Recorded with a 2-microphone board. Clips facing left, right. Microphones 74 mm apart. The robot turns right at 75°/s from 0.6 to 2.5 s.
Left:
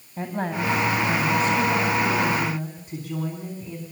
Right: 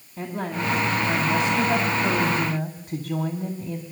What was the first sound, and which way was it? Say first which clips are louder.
A woman speaking: left 2 dB; 145° left.